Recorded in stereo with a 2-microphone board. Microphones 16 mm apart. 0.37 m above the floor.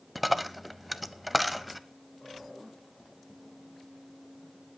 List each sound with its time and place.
0.1 s a dropped coin: 5° right (ahead or behind), 0.7 m